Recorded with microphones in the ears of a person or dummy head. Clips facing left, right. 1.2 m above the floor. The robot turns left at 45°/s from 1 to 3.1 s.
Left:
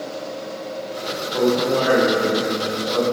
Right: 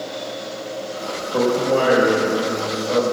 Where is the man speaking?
60° right, 4.5 m; by 3.0 s 135° right, 4.5 m.